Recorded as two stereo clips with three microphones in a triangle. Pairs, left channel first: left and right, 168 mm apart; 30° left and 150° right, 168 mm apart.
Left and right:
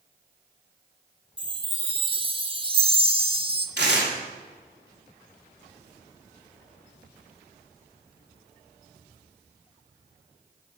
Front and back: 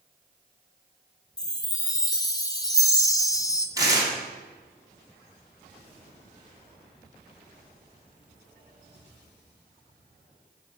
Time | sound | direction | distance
1.4 | a chime | 35° right | 0.9 m
3.8 | tearing paper | 80° right | 2.5 m